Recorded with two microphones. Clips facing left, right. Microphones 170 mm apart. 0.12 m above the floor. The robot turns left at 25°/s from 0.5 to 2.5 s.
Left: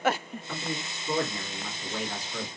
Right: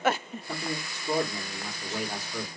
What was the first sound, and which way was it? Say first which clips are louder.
A man speaking: right 1 dB; 125° right.